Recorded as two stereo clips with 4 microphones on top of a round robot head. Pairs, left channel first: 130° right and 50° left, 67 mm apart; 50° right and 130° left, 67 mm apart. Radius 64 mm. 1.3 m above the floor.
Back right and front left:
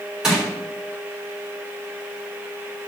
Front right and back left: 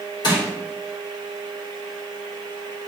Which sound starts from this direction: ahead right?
Crushing, at 0.2 s.